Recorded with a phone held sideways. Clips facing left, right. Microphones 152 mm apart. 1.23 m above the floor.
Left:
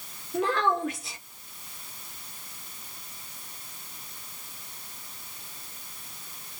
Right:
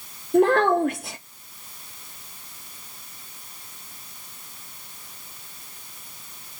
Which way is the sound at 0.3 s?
55° right (ahead or behind).